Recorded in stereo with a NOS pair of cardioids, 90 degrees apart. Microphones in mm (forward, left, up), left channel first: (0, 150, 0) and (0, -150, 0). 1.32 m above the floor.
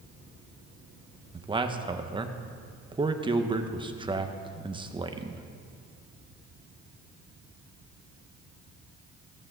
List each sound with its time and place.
1.3 s a man speaking: 15° right, 1.3 m